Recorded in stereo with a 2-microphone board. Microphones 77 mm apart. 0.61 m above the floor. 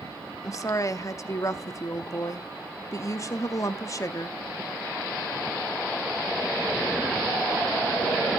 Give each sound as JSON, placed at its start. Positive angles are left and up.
{"t": 0.4, "sound": "a woman speaking", "side_deg": 40, "distance_m": 0.7}